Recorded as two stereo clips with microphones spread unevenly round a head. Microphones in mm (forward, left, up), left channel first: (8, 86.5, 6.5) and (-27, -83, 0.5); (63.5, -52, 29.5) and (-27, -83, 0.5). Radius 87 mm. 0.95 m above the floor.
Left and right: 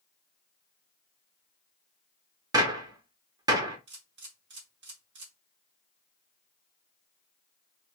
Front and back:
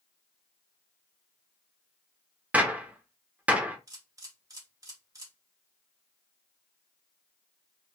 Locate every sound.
2.5 s a gunshot: 60° right, 0.6 m
3.9 s a camera shutter: 115° right, 1.7 m